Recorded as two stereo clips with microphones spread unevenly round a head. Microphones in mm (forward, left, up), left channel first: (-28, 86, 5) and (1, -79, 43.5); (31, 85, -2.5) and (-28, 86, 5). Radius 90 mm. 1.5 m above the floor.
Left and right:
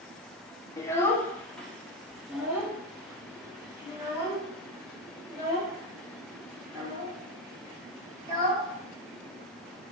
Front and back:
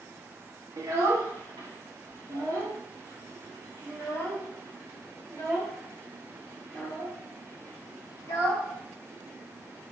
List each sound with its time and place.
0.8 s a child speaking: 175° left, 1.4 m; by 8.7 s 140° right, 6.5 m